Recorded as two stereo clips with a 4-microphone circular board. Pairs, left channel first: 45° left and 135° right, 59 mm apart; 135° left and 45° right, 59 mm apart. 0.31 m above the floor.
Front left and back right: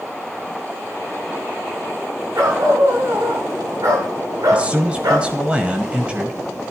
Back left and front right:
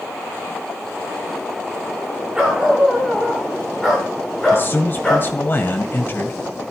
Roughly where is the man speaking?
Behind.